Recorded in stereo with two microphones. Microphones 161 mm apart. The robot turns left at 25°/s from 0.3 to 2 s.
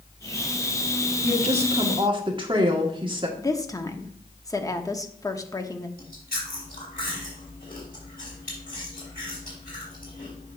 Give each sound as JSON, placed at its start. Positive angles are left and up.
{"t": 1.2, "sound": "a woman speaking", "side_deg": -50, "distance_m": 1.4}
{"t": 3.4, "sound": "a woman speaking", "side_deg": 20, "distance_m": 0.8}
{"t": 6.0, "sound": "chewing", "side_deg": 65, "distance_m": 3.0}